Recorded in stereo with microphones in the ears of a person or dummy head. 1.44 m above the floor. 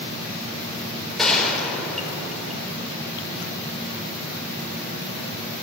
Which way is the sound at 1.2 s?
5° left (ahead or behind).